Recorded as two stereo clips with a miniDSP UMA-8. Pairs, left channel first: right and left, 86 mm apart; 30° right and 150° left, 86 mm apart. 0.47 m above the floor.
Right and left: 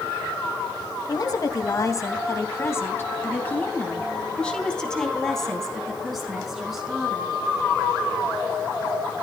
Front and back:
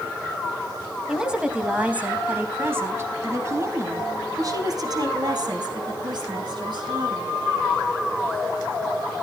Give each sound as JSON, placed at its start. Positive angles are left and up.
{"t": 1.1, "sound": "a woman speaking", "azimuth_deg": -125, "distance_m": 3.0}